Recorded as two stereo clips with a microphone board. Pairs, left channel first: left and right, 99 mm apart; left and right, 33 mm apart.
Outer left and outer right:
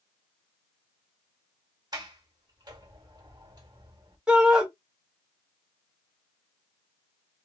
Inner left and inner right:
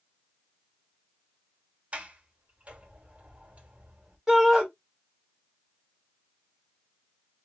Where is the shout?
10° right (ahead or behind), 1.6 m.